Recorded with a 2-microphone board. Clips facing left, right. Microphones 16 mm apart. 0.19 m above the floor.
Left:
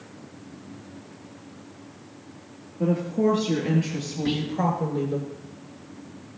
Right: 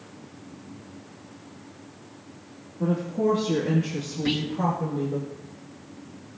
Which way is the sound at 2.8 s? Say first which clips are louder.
Left 2 dB; 65° left (ahead or behind).